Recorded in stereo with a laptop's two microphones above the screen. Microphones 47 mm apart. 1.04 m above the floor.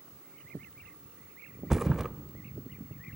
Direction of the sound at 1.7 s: 10° right (ahead or behind).